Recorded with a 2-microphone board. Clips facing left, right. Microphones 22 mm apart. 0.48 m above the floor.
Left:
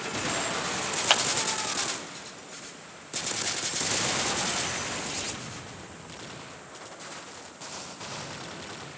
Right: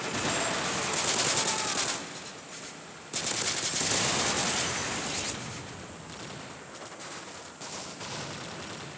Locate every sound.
1.1 s a clap: 70° left (ahead or behind), 2.5 m